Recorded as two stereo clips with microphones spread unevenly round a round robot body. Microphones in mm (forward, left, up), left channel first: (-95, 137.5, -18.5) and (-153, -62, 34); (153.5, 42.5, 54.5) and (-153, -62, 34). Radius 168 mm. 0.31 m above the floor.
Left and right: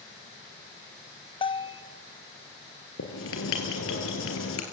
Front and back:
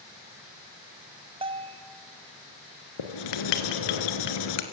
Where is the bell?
130° left, 0.8 m.